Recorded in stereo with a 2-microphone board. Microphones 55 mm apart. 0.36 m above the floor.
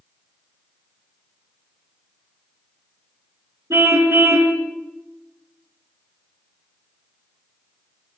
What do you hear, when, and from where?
3.7 s a car horn: 65° right (ahead or behind), 3 m